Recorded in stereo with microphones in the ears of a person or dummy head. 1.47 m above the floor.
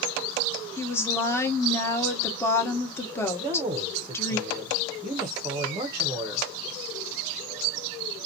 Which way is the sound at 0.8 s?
15° left (ahead or behind).